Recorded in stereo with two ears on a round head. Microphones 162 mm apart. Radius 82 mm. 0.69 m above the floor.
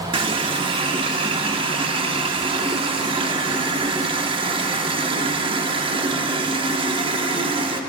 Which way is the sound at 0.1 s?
30° right (ahead or behind).